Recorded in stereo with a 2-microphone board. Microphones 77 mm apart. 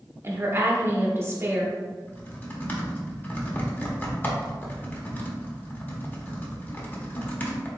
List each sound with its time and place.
0.2 s a woman speaking: 35° right (ahead or behind), 1.0 m
2.1 s typing on a keyboard: 25° left (ahead or behind), 0.9 m